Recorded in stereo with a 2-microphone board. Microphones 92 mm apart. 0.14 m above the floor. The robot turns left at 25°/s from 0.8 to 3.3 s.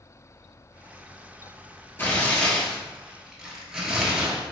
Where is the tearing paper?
25° left, 1.0 m; by 4.4 s 5° right, 1.0 m.